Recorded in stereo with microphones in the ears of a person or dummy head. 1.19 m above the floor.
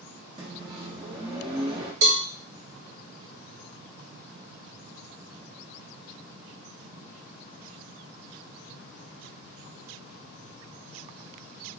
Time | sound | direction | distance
0.4 | a microwave | 30° right (ahead or behind) | 0.9 m
2.0 | a cowbell | 75° right (ahead or behind) | 1.0 m